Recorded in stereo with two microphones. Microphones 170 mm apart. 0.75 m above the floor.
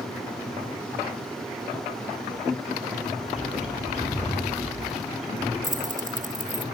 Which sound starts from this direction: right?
Keys jangling, at 5.6 s.